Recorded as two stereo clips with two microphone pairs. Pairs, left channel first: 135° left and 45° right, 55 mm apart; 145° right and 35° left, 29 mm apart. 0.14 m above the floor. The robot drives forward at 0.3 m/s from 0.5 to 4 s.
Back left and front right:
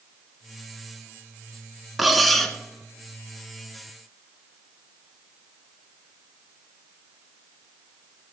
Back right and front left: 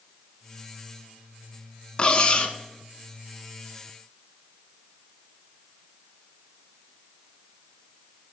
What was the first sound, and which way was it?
Cutlery clinking, 135° right.